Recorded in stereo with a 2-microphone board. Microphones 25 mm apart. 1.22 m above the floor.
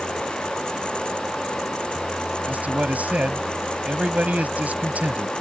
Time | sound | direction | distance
2.5 | a man speaking | 80° right | ?